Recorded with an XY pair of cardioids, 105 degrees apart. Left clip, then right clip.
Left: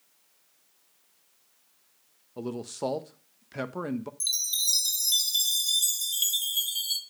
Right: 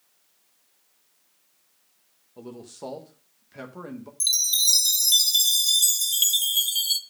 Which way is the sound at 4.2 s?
40° right.